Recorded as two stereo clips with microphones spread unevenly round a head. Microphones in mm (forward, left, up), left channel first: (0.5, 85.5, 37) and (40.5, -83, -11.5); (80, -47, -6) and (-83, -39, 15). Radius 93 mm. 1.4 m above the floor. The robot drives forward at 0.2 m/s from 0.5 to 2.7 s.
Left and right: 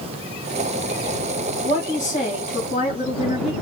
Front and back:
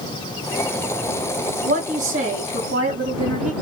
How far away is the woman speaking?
About 3 m.